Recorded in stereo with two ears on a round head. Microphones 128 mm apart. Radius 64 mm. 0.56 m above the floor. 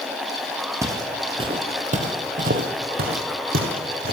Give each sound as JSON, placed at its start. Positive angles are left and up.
{"t": 0.8, "sound": "footsteps", "side_deg": -20, "distance_m": 1.5}